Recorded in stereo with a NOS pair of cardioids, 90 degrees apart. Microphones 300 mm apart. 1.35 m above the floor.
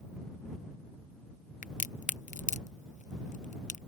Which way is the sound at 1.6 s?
25° left.